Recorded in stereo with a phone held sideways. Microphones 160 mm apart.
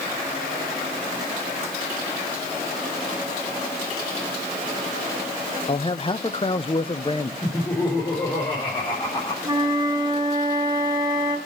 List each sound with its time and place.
5.7 s a man speaking: 35° left (ahead or behind), 0.7 m
7.4 s laughter: 25° left (ahead or behind), 5 m
9.4 s a flute: 25° right (ahead or behind), 2 m